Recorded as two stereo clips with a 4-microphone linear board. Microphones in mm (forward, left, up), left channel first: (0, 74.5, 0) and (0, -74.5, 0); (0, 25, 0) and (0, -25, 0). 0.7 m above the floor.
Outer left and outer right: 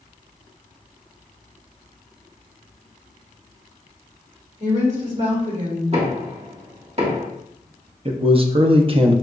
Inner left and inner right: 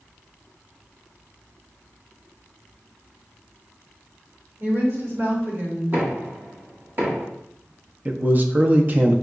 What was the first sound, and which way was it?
A woman speaking, 50° right (ahead or behind).